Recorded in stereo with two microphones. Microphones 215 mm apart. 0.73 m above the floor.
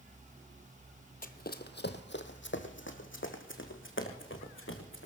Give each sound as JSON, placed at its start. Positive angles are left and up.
{"t": 1.2, "sound": "running footsteps", "side_deg": 40, "distance_m": 0.9}